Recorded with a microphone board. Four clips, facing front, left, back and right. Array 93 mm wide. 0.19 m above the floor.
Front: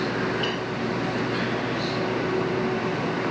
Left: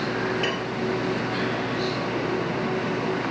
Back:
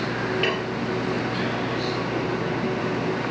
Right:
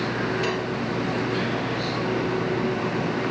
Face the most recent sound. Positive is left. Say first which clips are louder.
# right 1 dB, back 3 dB
turn(degrees=150)